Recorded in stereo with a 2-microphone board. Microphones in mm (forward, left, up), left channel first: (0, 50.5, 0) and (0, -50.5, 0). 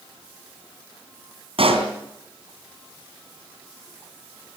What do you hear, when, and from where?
1.6 s a pop: 65° right (ahead or behind), 3 m